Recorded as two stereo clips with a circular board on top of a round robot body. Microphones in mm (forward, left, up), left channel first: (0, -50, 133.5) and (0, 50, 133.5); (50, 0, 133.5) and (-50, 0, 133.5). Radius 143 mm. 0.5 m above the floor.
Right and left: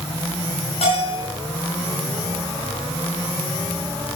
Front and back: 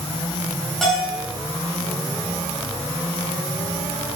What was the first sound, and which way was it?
A bell, 90° right.